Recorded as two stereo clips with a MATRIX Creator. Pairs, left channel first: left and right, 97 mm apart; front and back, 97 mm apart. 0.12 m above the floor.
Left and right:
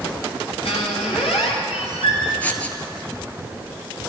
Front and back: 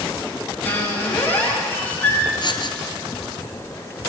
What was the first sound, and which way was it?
A squeak, 70° left.